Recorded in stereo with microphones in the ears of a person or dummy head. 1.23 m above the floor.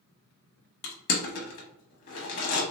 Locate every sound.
0.8 s crushing: 50° left (ahead or behind), 1.0 m